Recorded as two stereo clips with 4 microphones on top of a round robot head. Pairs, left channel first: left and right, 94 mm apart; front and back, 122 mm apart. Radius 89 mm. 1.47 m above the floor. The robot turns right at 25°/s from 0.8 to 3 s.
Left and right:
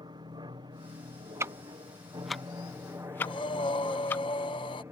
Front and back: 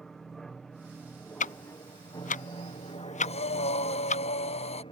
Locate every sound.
0.0 s an aircraft: 90° right; by 4.9 s 35° right
1.4 s ticking: 20° right; by 4.2 s 20° left
3.2 s breathing: 30° left